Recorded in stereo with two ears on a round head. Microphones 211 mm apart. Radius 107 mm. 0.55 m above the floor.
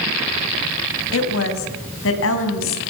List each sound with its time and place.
1.1 s a woman speaking: 55° left (ahead or behind), 4 m